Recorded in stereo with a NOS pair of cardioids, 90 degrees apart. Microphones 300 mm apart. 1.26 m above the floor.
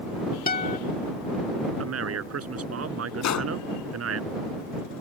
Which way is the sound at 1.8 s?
50° right.